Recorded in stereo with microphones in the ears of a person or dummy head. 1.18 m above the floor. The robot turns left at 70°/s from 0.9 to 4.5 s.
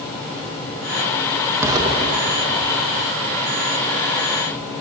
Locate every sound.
1.6 s an explosion: 10° right (ahead or behind), 1.4 m; by 3.1 s 55° right (ahead or behind), 1.4 m